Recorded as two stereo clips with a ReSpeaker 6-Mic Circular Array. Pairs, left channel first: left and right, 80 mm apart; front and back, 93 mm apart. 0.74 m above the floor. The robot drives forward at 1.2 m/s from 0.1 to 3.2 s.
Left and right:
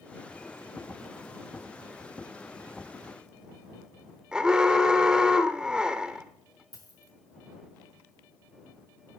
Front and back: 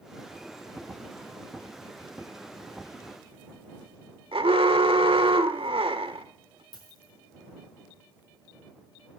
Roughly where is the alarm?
Behind.